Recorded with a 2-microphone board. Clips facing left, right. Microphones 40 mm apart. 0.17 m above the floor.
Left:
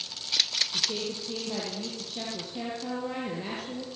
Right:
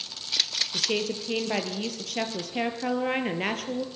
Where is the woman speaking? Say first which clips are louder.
Right 4 dB; 70° right (ahead or behind), 3 m.